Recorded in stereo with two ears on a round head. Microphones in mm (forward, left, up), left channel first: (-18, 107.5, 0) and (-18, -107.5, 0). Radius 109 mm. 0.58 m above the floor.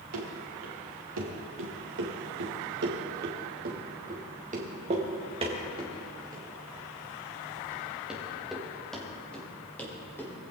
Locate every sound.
0.1 s running footsteps: 65° right (ahead or behind), 4.5 m; by 10.3 s 10° left (ahead or behind), 5.5 m